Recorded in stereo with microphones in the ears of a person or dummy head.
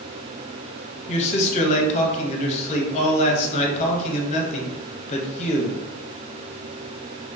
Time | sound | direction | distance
1.1 | a man speaking | 40° left (ahead or behind) | 1.0 m